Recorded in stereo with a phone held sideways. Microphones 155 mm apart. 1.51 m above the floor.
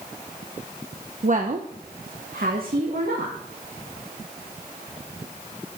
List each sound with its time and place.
1.2 s a woman speaking: 55° right (ahead or behind), 0.7 m; by 3.3 s 75° right (ahead or behind), 1.9 m